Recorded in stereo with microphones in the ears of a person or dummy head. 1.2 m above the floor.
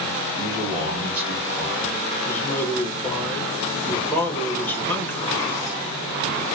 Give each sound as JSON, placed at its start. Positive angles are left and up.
{"t": 0.4, "sound": "a man speaking", "side_deg": -25, "distance_m": 0.7}
{"t": 2.2, "sound": "a man speaking", "side_deg": 10, "distance_m": 0.9}